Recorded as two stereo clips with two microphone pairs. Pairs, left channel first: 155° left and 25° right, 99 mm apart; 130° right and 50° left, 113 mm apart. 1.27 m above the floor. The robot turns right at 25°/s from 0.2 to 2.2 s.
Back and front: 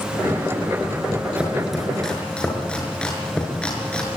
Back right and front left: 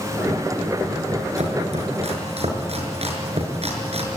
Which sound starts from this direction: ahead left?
Chopping, at 1.4 s.